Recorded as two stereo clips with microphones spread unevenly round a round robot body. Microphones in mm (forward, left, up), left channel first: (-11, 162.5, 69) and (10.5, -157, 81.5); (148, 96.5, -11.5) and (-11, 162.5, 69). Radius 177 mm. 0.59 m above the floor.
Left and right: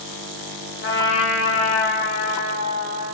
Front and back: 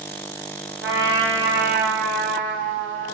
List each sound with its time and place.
0.8 s a trumpet: 145° left, 0.7 m